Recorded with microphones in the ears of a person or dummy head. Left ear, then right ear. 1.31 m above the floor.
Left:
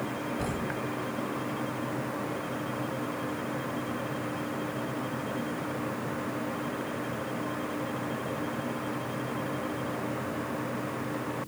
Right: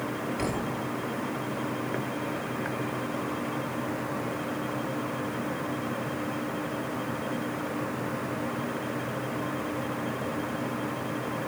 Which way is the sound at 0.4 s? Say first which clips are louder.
Right 2 dB; 70° right (ahead or behind).